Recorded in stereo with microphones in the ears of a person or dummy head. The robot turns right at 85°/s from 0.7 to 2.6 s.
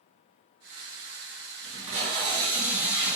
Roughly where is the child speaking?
No child speaking in this recording.